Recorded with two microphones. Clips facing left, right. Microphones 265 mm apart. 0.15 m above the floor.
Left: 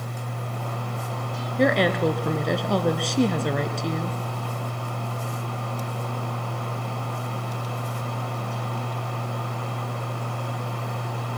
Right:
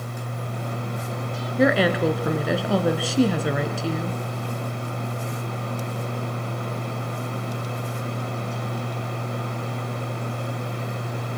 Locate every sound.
1.6 s a woman speaking: 5° right (ahead or behind), 2 m